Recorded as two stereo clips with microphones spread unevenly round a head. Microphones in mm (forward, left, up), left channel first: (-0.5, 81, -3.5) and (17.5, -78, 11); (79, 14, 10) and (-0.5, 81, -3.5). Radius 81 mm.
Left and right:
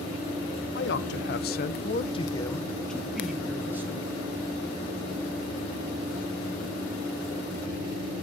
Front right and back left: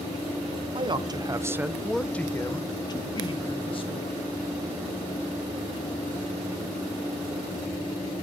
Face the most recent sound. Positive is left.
turn(degrees=-5)